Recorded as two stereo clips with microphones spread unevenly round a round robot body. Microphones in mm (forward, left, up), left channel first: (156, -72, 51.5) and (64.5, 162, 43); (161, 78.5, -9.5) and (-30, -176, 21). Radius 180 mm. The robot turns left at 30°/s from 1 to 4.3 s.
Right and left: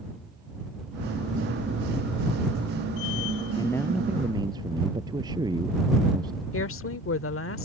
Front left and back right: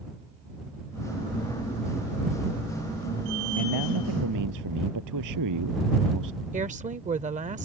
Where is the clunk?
No clunk in this recording.